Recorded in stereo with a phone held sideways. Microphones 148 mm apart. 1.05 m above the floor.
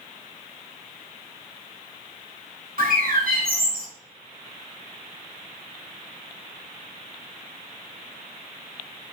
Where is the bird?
75° right (ahead or behind), 1.2 m.